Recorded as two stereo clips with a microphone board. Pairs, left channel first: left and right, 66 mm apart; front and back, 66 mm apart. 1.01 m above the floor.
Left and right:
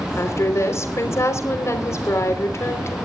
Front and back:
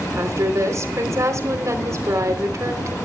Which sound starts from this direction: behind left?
A woman speaking, at 0.2 s.